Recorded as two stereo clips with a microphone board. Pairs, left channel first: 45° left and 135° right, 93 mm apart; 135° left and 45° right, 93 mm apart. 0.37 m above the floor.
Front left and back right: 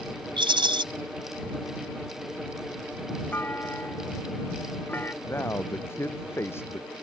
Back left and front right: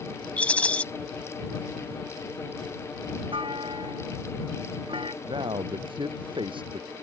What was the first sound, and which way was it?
A rattle, 150° right.